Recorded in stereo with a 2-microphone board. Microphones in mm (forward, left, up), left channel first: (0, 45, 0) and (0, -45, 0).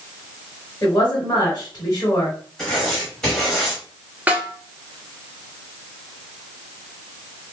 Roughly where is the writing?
Centre.